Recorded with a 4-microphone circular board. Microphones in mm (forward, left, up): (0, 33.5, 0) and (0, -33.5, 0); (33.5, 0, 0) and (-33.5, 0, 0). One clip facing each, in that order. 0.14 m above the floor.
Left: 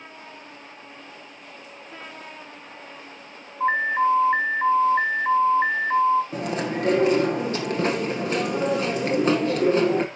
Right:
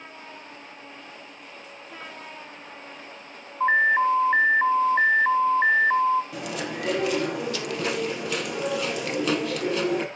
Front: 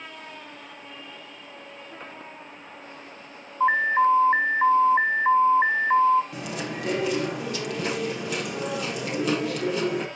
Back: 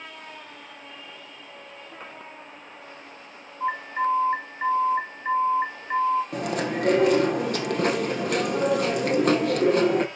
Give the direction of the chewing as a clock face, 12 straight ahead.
7 o'clock.